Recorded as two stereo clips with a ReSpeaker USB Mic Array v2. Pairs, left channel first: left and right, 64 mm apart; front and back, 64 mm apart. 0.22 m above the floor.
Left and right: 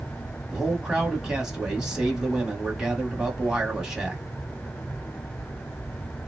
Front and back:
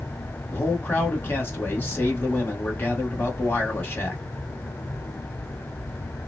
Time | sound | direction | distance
0.5 | a man speaking | 20° right | 1.5 m